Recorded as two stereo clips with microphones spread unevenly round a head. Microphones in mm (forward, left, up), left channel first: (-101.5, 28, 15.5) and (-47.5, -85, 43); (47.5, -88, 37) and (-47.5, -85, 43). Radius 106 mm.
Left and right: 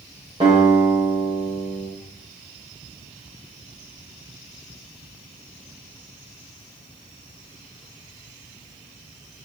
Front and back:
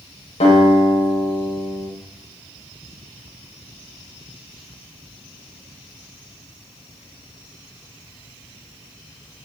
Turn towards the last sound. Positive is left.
turn(degrees=5)